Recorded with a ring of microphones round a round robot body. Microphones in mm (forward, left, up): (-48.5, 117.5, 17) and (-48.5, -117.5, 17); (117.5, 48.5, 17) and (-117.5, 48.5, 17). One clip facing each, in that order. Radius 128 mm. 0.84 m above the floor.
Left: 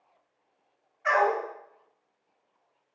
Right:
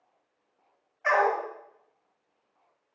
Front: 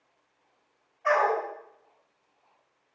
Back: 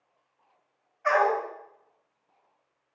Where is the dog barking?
105° right, 2.5 m.